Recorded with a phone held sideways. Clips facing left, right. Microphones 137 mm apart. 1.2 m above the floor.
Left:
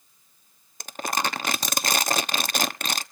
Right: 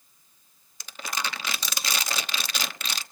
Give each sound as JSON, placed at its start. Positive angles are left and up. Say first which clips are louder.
{"t": 0.8, "sound": "crumpling", "louder": "left 6 dB", "side_deg": 50, "distance_m": 0.9}